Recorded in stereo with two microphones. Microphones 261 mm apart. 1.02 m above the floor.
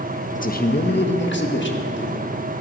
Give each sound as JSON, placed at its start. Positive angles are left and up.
{"t": 0.3, "sound": "a man speaking", "side_deg": 30, "distance_m": 0.6}